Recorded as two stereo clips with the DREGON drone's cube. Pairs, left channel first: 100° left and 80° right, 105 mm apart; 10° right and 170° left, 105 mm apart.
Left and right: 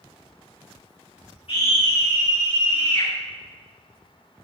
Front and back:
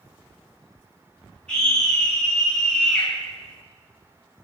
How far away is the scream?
About 8.5 m.